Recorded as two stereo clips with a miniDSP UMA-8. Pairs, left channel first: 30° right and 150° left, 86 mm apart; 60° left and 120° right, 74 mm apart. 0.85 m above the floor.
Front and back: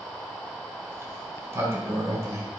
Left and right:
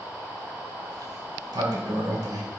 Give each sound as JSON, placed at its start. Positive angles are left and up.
{"t": 0.9, "sound": "a sliding door", "azimuth_deg": -150, "distance_m": 1.9}